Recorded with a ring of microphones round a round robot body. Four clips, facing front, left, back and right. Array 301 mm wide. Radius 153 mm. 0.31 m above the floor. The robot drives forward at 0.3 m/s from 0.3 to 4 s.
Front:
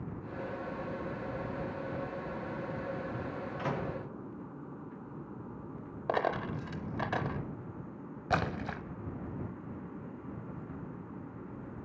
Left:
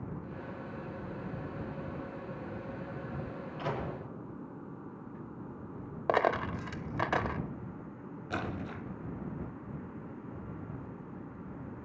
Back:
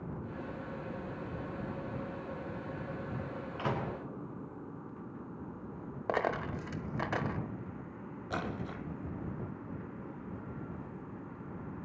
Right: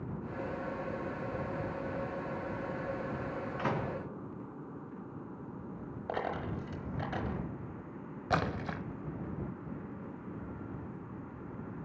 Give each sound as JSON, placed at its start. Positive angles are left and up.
{"t": 3.6, "sound": "a microwave", "azimuth_deg": -120, "distance_m": 4.0}
{"t": 6.1, "sound": "a dropped coin", "azimuth_deg": 95, "distance_m": 0.6}
{"t": 8.3, "sound": "a splash", "azimuth_deg": -45, "distance_m": 0.7}